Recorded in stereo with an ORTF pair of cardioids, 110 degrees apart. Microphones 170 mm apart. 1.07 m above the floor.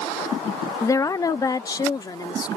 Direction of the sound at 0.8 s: 20° left.